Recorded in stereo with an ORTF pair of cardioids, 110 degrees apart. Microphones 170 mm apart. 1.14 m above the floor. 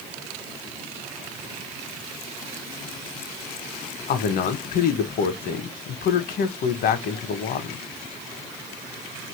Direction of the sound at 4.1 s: 60° left.